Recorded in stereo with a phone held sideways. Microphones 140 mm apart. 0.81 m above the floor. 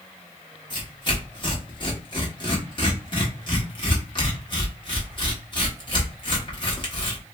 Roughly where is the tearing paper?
Left.